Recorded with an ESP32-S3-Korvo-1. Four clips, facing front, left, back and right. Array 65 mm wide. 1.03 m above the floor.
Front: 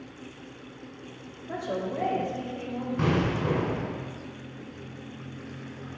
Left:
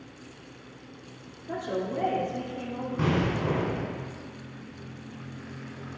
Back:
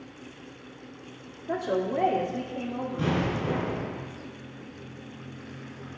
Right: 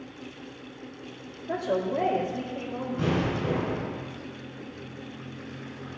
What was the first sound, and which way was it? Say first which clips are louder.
A woman speaking: right 4 dB, back 4 dB; 170° right.